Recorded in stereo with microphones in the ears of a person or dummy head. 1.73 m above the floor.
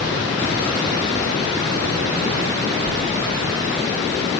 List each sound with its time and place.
Only background noise.